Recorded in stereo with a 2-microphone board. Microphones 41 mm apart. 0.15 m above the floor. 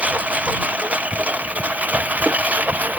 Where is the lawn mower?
35° right (ahead or behind); by 3.0 s 40° right (ahead or behind).